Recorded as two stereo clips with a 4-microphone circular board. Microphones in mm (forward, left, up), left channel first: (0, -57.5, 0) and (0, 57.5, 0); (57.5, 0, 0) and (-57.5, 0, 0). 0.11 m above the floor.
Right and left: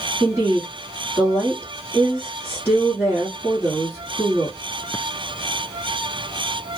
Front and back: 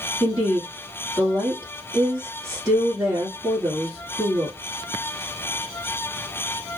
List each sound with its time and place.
0.2 s a woman speaking: 135° left, 1.5 m